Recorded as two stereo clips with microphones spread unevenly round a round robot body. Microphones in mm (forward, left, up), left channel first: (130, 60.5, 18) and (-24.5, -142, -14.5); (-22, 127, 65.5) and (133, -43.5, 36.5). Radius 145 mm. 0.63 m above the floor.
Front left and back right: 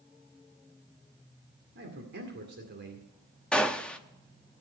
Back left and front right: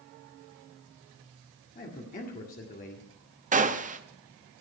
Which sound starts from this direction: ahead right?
A gunshot, at 3.5 s.